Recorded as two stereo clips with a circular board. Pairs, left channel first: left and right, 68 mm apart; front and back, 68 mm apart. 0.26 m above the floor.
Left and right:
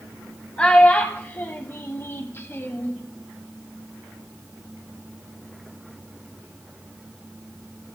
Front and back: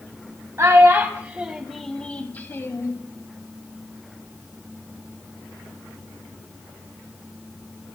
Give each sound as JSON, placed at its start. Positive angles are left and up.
{"t": 0.6, "sound": "a child speaking", "azimuth_deg": 160, "distance_m": 0.8}